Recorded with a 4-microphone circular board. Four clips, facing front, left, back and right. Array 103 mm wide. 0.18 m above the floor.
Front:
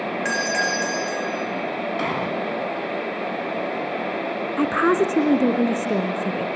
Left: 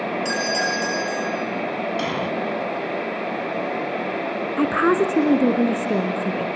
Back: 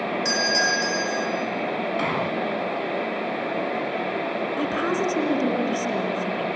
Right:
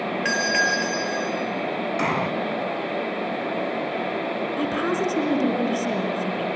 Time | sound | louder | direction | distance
0.2 | a doorbell | right 4 dB, front 1 dB | 55° right | 4.5 m
2.0 | an explosion | right 1 dB, front 1 dB | 90° right | 1.8 m
4.6 | a woman speaking | left 8 dB, front 8 dB | 45° left | 1.8 m